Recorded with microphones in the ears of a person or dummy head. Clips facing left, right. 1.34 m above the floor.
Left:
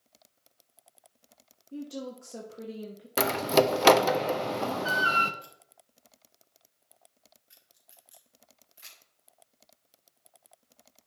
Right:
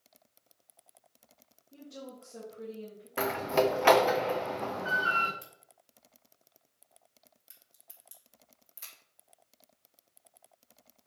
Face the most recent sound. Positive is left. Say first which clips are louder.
# left 2 dB
turn(degrees=-55)  # may be behind; listen again after turning